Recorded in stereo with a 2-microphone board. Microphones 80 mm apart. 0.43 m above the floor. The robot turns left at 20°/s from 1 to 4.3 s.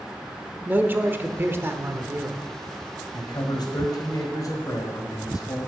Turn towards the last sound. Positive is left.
turn(degrees=50)  # may be behind; listen again after turning